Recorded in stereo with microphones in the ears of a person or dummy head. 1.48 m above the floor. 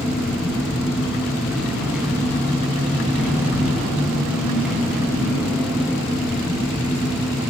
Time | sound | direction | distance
0.0 | an engine running | 5° right (ahead or behind) | 6.5 m